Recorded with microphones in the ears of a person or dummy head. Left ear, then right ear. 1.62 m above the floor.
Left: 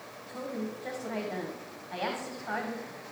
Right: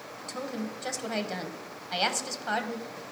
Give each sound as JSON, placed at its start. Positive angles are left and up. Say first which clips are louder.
{"t": 0.3, "sound": "a woman speaking", "louder": "right 1 dB", "side_deg": -85, "distance_m": 1.3}